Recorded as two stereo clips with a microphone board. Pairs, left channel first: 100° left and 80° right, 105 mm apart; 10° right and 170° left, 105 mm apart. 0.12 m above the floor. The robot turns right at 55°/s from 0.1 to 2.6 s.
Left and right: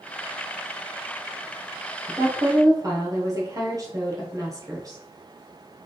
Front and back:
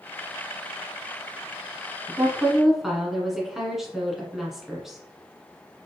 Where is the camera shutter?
I don't hear a camera shutter.